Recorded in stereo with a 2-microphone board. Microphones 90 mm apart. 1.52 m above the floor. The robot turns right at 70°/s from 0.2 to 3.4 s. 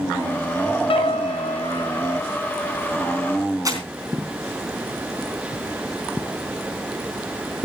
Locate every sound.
0.9 s a piano: 65° left, 0.8 m; by 2.5 s straight behind, 0.8 m
3.6 s crumpling: 35° right (ahead or behind), 3.5 m